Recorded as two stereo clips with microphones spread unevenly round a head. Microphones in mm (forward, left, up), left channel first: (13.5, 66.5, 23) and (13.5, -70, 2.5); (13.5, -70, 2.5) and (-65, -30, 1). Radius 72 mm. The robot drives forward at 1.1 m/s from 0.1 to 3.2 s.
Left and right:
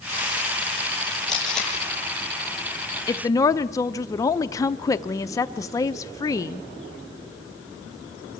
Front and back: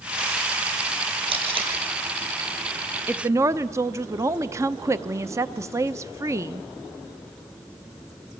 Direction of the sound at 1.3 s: 175° left.